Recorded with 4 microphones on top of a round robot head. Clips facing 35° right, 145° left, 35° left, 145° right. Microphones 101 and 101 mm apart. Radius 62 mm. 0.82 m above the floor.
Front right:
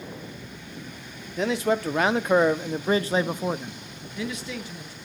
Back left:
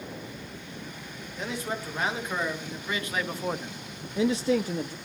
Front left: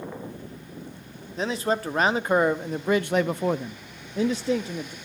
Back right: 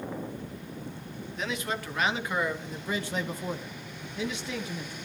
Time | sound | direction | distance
1.4 | a man speaking | 20° right | 1.7 m